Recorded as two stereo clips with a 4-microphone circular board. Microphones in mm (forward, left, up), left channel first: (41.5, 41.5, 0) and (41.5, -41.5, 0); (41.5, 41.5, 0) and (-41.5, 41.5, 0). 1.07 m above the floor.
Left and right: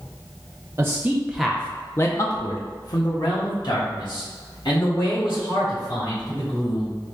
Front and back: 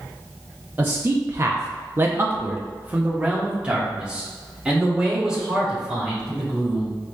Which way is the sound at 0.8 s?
130° right.